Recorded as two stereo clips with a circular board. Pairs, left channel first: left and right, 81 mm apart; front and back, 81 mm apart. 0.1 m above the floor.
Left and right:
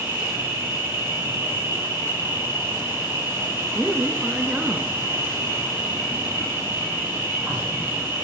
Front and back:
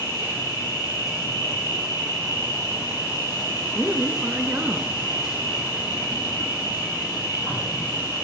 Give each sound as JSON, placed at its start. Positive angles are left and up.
{"t": 0.0, "sound": "an insect", "azimuth_deg": -35, "distance_m": 4.0}
{"t": 3.8, "sound": "a woman speaking", "azimuth_deg": -145, "distance_m": 1.1}